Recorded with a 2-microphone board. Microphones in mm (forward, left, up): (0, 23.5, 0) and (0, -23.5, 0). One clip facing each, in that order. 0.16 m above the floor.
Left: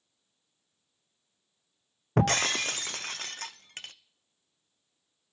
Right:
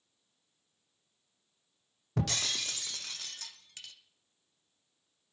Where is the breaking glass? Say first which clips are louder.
Left 9 dB; 45° left (ahead or behind), 0.6 m.